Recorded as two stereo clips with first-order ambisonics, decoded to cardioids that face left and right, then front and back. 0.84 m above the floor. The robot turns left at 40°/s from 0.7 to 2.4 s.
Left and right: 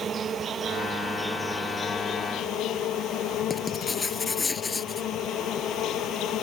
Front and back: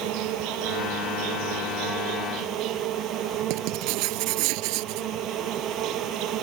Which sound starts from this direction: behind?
Writing, at 3.5 s.